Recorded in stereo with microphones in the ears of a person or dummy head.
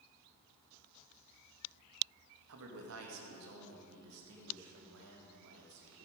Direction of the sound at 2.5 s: 70° right (ahead or behind).